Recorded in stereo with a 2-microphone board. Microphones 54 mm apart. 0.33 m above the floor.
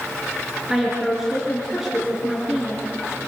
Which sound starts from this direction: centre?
A woman speaking, at 0.7 s.